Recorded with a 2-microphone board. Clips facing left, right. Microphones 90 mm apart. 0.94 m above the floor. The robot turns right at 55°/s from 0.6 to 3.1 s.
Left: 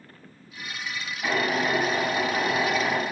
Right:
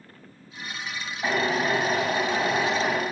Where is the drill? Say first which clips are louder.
Right 1 dB; 150° right, 5.5 m; by 3.0 s 55° right, 5.5 m.